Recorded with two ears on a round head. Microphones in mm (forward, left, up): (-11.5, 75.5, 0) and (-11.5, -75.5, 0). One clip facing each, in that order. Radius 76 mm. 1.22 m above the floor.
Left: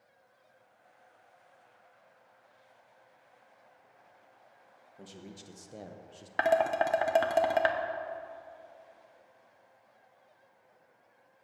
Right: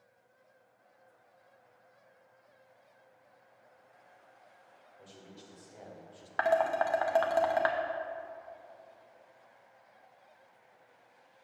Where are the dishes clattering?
20° left (ahead or behind), 0.7 m.